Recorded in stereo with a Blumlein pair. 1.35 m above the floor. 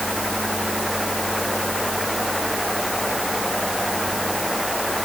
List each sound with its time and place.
0.0 s a fan: 5° left